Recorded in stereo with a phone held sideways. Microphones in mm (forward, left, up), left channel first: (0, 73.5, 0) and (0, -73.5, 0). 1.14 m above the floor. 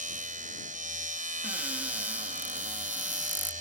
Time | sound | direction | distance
0.0 | a machine running | 60° right (ahead or behind) | ?
1.4 | a cupboard door | 10° right (ahead or behind) | ?